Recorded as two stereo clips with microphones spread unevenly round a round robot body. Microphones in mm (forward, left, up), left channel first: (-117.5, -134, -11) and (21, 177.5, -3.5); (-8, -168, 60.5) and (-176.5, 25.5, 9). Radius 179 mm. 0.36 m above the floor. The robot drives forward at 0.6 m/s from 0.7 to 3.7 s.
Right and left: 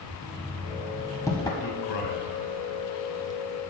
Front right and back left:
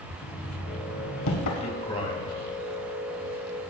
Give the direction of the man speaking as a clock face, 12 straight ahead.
4 o'clock.